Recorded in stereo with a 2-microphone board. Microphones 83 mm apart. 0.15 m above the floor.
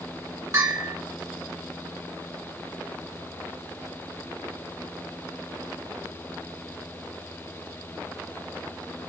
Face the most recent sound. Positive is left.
turn(degrees=-35)  # may be behind; listen again after turning